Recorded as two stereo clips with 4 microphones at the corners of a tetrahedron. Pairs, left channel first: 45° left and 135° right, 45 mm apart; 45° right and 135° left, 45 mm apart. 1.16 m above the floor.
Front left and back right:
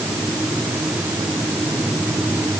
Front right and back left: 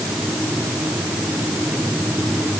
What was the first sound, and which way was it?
Only background noise.